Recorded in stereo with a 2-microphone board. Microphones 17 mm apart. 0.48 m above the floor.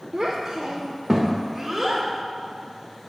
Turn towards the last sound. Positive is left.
turn(degrees=-10)  # may be behind; listen again after turning